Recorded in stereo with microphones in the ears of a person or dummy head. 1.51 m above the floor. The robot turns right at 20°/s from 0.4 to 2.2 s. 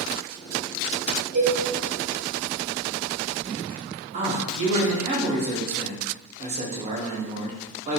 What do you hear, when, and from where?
1.3 s a cowbell: 50° right (ahead or behind), 1.6 m; by 1.6 s 55° right (ahead or behind), 1.6 m
4.1 s a man speaking: 35° right (ahead or behind), 0.6 m